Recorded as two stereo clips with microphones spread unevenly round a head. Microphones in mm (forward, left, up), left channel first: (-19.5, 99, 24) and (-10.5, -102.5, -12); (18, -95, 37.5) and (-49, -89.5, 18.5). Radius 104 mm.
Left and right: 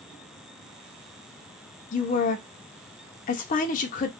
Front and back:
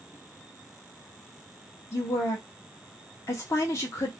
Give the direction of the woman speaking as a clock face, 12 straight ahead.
10 o'clock.